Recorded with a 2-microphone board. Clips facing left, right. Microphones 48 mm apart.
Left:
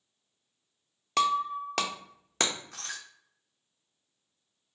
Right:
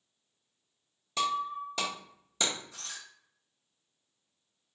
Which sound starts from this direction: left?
Breaking glass, at 1.2 s.